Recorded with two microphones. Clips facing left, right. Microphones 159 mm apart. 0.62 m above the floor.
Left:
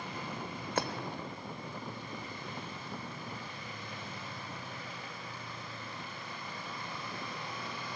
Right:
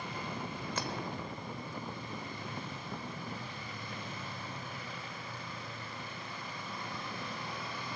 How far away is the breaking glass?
About 1.0 m.